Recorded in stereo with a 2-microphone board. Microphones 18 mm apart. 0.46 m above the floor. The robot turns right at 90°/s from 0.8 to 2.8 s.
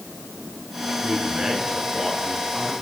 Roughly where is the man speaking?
Behind right.